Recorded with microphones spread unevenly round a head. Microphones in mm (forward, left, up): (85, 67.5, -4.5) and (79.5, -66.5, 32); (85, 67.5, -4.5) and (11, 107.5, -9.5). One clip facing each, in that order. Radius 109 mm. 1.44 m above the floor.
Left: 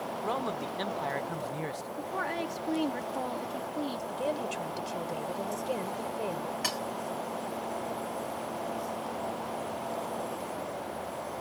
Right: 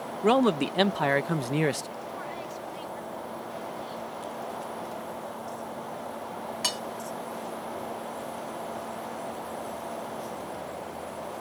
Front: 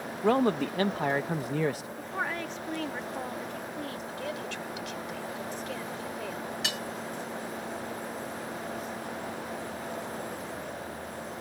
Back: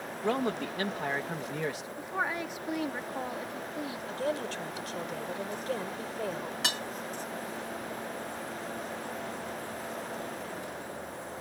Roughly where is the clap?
No clap in this recording.